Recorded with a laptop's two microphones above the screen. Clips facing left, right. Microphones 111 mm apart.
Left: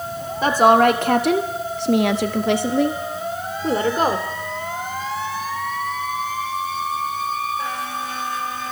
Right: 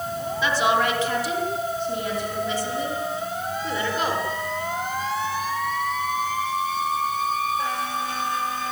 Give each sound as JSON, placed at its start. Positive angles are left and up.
{"t": 0.4, "sound": "a woman speaking", "side_deg": 45, "distance_m": 3.0}